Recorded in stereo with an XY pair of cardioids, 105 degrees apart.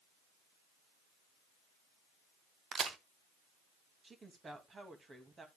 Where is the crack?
55° right, 1.2 m.